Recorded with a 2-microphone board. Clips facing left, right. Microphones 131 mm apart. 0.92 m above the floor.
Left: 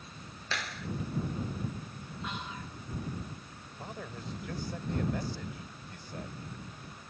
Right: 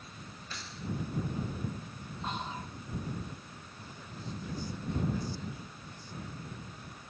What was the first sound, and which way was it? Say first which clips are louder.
A clap: left 6 dB; 80° left.